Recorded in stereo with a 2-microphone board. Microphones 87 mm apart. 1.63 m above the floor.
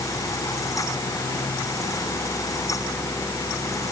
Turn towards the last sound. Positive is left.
No sound to turn to.